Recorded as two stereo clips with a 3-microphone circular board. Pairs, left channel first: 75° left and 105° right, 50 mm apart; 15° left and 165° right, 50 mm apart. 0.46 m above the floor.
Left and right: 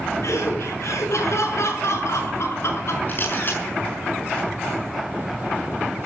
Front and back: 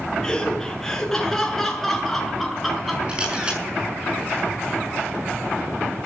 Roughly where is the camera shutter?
Behind left.